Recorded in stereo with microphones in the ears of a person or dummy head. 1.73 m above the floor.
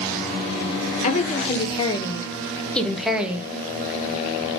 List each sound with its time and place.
1.0 s a woman speaking: 40° left (ahead or behind), 1.6 m; by 3.5 s 10° right (ahead or behind), 1.1 m